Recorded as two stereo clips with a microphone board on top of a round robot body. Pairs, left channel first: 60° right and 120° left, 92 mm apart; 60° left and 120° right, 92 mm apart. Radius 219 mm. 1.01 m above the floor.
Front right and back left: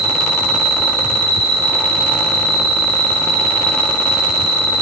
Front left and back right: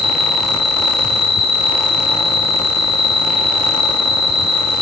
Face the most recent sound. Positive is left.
turn(degrees=155)